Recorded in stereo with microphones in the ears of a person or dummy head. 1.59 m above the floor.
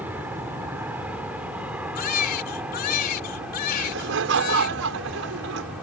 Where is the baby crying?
55° left (ahead or behind).